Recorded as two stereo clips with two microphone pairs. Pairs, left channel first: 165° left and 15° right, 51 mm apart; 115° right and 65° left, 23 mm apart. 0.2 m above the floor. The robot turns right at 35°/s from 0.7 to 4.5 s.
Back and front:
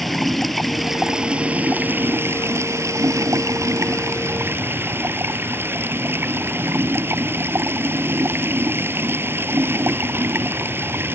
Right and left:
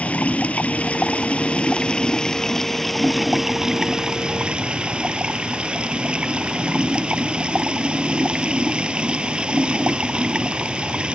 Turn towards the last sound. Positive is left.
turn(degrees=25)